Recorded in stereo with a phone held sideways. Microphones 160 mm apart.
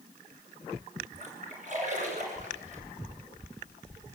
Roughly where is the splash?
Right.